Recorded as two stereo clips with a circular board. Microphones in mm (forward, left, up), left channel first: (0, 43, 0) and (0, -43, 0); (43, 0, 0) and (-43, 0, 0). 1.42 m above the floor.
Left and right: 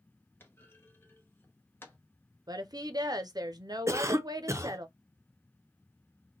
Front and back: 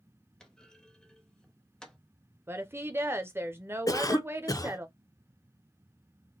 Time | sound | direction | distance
0.4 | a clunk | 70° left | 0.8 m
2.5 | a woman speaking | 120° right | 0.6 m
3.9 | a cough | 40° right | 0.6 m